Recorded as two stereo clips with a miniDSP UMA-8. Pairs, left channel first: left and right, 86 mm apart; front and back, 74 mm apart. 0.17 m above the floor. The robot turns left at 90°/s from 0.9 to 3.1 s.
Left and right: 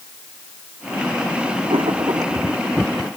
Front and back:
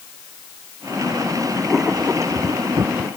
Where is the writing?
85° right; by 3.1 s 150° left.